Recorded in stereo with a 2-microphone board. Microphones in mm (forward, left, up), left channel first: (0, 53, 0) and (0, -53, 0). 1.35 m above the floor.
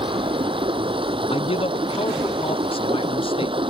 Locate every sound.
0.0 s running water: 55° right (ahead or behind)
1.3 s a man speaking: 60° left (ahead or behind)